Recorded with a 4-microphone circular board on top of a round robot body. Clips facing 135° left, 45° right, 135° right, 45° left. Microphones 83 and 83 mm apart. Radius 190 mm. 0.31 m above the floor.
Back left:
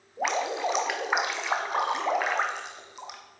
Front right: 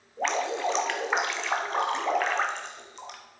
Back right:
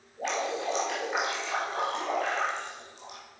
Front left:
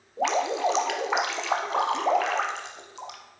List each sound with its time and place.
0.2 s dripping: 50° left, 0.7 m